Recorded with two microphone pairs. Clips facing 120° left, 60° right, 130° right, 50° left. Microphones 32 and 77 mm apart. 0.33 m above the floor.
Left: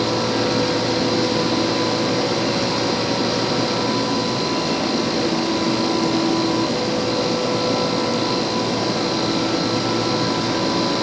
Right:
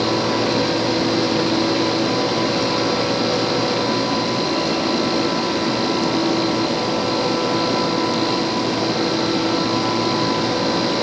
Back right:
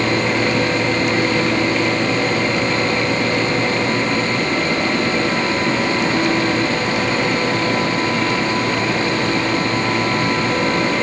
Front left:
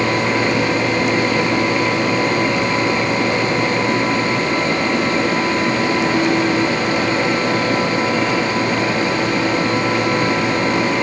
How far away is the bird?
I don't hear a bird.